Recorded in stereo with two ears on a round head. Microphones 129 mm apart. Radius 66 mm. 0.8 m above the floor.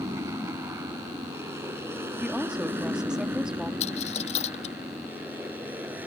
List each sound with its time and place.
0.0 s an aircraft: 20° right (ahead or behind); by 6.1 s 10° right (ahead or behind)
2.2 s a woman speaking: 5° right (ahead or behind)
3.8 s a dropped coin: 45° left (ahead or behind)